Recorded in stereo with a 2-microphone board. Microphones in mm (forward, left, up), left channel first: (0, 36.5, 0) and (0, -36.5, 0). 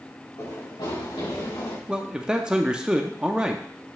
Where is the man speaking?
10° right (ahead or behind), 0.5 m.